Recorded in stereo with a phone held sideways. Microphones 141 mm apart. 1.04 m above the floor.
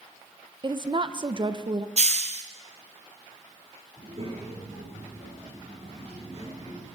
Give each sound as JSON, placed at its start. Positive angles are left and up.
{"t": 0.6, "sound": "a woman speaking", "side_deg": -35, "distance_m": 0.6}
{"t": 2.0, "sound": "a hiss", "side_deg": -55, "distance_m": 0.9}
{"t": 4.0, "sound": "a child speaking", "side_deg": -50, "distance_m": 8.5}